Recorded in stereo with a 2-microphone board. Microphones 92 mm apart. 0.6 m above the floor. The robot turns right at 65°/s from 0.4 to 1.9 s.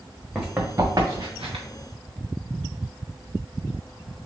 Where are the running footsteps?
5° right (ahead or behind), 1.9 m; by 1.6 s 75° right (ahead or behind), 2.5 m.